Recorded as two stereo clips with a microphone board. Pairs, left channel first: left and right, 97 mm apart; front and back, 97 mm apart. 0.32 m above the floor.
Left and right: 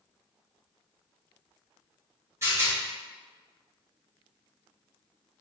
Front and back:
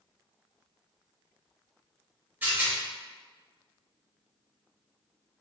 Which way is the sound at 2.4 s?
125° right.